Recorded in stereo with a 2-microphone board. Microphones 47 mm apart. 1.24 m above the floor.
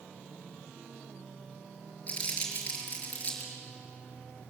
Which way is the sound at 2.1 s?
30° left (ahead or behind).